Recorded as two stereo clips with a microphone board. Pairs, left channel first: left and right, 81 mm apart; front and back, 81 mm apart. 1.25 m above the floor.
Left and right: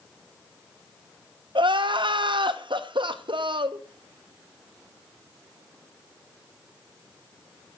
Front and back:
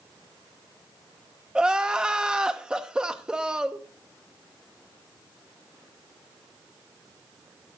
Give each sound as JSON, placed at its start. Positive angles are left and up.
{"t": 1.6, "sound": "crying", "azimuth_deg": -100, "distance_m": 1.0}